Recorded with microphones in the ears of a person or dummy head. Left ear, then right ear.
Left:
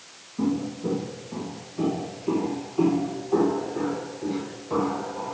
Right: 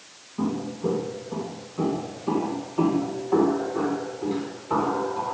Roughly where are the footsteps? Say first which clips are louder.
Even; right.